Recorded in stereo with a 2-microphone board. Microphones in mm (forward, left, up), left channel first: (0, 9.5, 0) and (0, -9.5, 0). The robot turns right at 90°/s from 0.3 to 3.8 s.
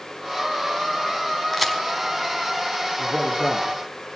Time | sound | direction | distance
1.5 | a crack | 5° left (ahead or behind) | 4.5 m
3.0 | a man speaking | 10° left | 8.5 m